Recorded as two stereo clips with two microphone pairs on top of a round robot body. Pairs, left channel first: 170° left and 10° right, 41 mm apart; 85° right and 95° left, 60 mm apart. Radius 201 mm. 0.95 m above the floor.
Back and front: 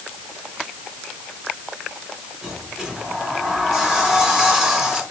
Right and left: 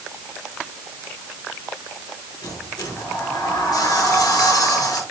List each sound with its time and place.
2.4 s a sliding door: 95° right, 4.5 m